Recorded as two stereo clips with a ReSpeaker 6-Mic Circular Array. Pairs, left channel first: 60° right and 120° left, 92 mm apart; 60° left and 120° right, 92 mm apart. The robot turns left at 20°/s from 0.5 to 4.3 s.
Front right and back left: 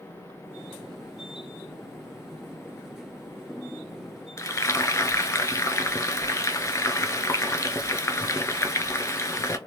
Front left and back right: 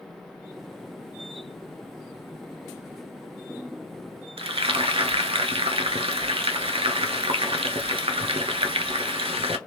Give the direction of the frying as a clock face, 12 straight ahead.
4 o'clock.